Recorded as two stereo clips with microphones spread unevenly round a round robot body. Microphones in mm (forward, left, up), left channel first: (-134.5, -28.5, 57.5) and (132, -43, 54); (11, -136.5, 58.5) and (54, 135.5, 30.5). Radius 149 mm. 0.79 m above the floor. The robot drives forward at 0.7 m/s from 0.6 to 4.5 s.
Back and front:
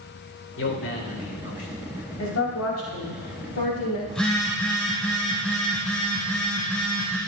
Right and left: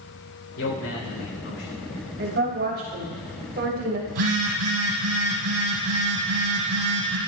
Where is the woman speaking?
135° left, 5.5 m; by 4.0 s 140° left, 6 m.